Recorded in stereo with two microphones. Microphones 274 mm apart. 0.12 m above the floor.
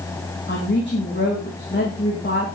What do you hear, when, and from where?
0.5 s a woman speaking: 40° left (ahead or behind), 7.5 m